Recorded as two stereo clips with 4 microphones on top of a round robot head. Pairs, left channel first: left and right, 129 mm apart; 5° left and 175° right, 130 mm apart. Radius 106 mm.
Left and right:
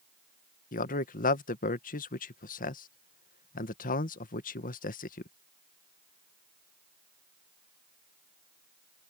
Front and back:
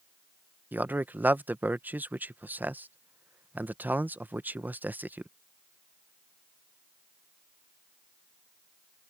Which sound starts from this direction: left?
A man speaking, at 0.7 s.